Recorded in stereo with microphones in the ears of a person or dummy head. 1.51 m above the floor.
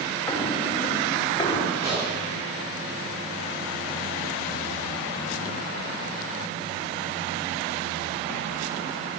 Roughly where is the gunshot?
Right.